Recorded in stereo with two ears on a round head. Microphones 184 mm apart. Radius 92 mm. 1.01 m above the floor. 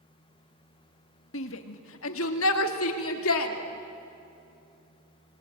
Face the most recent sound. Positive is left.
turn(degrees=75)  # may be behind; listen again after turning